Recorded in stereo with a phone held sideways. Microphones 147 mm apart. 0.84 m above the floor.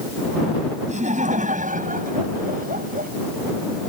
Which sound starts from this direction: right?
Laughter, at 0.9 s.